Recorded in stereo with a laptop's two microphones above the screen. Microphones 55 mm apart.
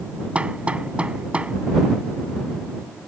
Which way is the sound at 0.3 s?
20° right (ahead or behind).